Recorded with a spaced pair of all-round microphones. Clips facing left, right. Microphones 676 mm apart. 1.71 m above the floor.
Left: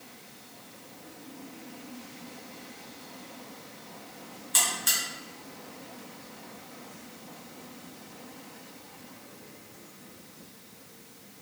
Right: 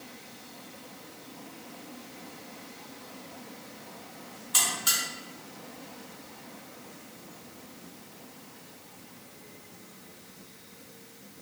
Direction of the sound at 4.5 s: 45° right (ahead or behind).